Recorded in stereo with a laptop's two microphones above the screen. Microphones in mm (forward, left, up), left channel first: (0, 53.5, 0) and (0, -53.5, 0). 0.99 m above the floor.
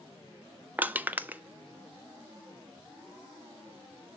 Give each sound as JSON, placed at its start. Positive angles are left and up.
{"t": 0.8, "sound": "crushing", "side_deg": -15, "distance_m": 0.9}